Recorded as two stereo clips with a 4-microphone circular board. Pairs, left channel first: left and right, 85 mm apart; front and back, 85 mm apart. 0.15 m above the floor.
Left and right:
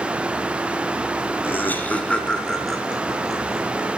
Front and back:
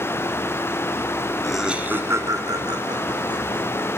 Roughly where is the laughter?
Left.